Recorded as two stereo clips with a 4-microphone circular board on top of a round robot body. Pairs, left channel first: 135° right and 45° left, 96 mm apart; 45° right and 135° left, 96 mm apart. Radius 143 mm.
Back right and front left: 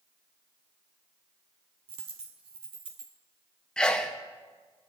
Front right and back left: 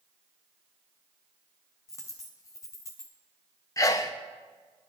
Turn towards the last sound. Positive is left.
turn(degrees=-60)